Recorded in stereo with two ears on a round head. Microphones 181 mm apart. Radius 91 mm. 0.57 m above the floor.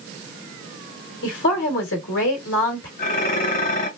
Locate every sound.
1.2 s a woman speaking: 65° left (ahead or behind), 2.5 m
3.0 s dishes clattering: 45° left (ahead or behind), 1.7 m